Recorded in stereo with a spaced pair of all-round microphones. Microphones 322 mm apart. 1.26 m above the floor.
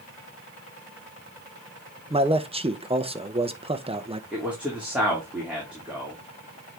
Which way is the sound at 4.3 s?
5° right (ahead or behind).